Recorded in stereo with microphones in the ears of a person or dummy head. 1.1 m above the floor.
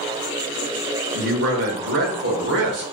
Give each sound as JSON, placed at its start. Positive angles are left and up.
{"t": 1.1, "sound": "a man speaking", "side_deg": -60, "distance_m": 0.8}